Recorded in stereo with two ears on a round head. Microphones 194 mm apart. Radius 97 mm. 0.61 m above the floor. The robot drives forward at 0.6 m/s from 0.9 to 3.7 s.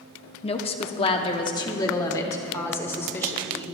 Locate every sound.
0.4 s a woman speaking: 30° left (ahead or behind), 0.9 m; by 3.6 s 10° left (ahead or behind), 2 m